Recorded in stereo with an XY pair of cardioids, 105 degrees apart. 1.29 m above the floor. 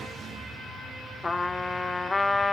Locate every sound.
1.2 s a trumpet: 20° left, 0.8 m